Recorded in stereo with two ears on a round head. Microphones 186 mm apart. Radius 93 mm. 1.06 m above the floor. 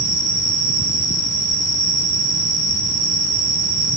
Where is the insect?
35° right (ahead or behind), 5.5 m.